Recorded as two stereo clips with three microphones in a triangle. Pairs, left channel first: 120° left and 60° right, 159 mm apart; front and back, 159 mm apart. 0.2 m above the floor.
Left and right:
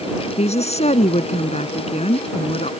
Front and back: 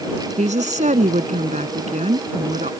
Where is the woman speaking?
155° left.